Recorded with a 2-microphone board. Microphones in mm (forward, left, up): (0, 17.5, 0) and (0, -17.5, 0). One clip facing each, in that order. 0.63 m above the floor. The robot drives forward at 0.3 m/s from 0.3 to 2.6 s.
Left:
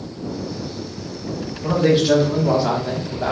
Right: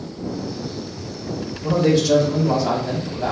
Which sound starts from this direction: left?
A man speaking, at 1.6 s.